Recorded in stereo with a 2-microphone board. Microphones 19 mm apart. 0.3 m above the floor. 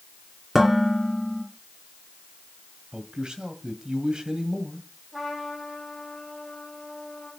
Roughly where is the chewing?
No chewing in this recording.